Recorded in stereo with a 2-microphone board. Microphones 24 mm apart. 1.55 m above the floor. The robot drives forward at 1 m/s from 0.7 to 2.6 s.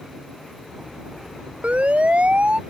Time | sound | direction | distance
1.6 | a siren | 70° right (ahead or behind) | ?